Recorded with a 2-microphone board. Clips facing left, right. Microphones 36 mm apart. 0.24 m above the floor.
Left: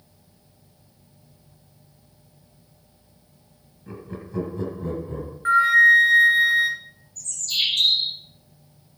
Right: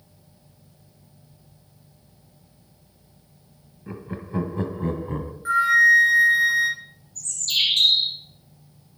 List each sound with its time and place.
3.9 s laughter: 20° right (ahead or behind), 1.1 m; by 5.3 s 50° right (ahead or behind), 1.5 m
5.5 s a flute: 40° left (ahead or behind), 2.5 m
7.2 s a bird: 65° right (ahead or behind), 6 m